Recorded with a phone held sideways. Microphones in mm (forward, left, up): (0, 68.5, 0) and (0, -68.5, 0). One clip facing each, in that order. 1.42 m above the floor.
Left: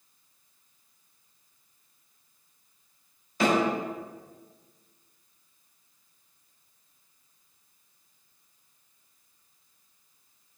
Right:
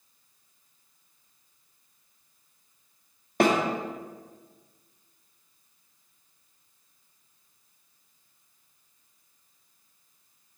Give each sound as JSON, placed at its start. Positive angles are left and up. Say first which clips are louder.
{"t": 3.4, "sound": "a snare drum", "louder": "right 2 dB", "side_deg": -65, "distance_m": 1.8}